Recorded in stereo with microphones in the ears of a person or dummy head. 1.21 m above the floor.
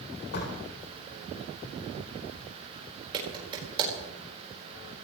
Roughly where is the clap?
Right.